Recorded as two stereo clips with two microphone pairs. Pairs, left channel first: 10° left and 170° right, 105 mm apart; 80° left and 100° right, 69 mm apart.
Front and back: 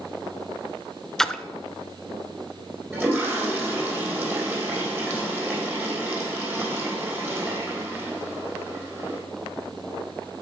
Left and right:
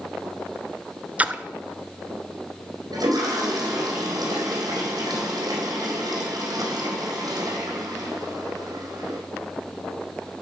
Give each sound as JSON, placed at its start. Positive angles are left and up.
{"t": 1.2, "sound": "a splash", "azimuth_deg": -65, "distance_m": 0.6}
{"t": 2.9, "sound": "a toilet flushing", "azimuth_deg": -100, "distance_m": 4.0}